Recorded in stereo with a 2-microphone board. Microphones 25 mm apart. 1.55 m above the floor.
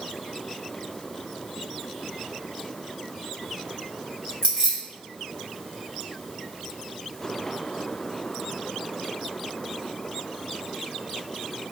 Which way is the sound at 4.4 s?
45° right (ahead or behind).